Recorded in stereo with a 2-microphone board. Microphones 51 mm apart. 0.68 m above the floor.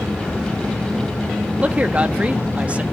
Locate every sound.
1.6 s a man speaking: 25° right (ahead or behind), 0.9 m